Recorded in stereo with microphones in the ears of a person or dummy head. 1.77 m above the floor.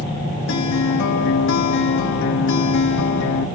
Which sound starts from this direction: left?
A guitar, at 0.5 s.